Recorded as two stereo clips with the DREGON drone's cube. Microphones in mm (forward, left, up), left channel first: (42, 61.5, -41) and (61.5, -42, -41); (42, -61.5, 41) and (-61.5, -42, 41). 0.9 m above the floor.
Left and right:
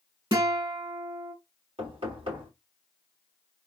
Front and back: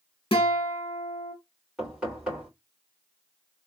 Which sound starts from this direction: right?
Knocking, at 1.8 s.